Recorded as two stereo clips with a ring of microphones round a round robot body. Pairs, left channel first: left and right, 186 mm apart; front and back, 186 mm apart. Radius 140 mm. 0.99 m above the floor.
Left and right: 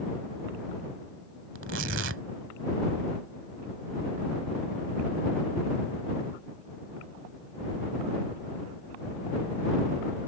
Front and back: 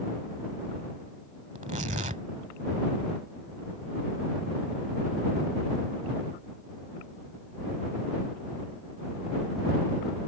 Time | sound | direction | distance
1.6 | tearing paper | 115° right | ?